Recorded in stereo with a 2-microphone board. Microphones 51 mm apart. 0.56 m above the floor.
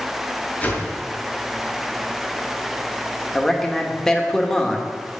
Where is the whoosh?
30° left (ahead or behind), 2.5 m.